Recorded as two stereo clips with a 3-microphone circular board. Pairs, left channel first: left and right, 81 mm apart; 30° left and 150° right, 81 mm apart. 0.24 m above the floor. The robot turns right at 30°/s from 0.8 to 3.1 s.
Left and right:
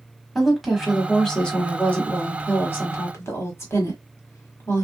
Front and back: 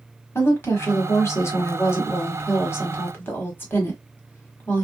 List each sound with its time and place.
0.3 s a woman speaking: straight ahead, 1.2 m; by 4.8 s 70° left, 1.2 m